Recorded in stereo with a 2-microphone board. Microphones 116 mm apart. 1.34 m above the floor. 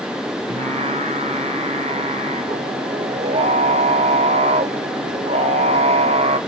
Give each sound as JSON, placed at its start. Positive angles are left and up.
{"t": 0.5, "sound": "singing", "side_deg": -70, "distance_m": 0.7}